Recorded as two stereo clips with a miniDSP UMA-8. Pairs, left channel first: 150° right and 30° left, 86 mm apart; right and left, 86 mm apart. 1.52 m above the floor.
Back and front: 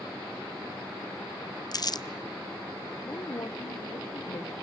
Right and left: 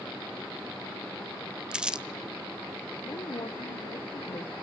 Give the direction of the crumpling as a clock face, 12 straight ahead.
6 o'clock.